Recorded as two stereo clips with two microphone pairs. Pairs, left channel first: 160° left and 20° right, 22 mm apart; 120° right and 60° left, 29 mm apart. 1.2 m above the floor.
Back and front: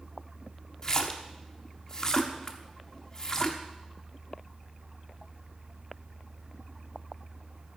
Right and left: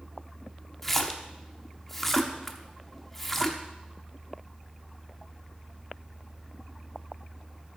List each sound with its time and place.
0.8 s a splash: 165° left, 0.8 m